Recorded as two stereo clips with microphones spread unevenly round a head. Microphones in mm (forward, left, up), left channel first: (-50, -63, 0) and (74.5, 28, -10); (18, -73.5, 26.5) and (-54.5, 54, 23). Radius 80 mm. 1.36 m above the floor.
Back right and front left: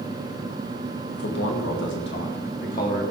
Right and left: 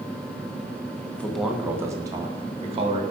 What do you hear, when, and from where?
1.1 s a man speaking: 140° right, 1.5 m; by 3.0 s 170° left, 3 m